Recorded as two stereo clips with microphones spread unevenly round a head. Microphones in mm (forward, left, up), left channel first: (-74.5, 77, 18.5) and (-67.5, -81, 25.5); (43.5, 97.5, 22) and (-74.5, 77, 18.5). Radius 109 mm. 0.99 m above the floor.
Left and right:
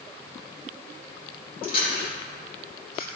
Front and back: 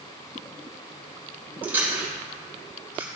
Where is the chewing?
115° left, 3.5 m.